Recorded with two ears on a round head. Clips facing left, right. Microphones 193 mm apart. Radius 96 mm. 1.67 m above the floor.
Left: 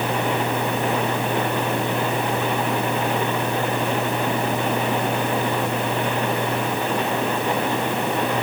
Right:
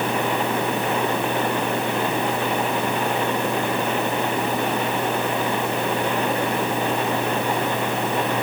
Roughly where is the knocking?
I don't hear knocking.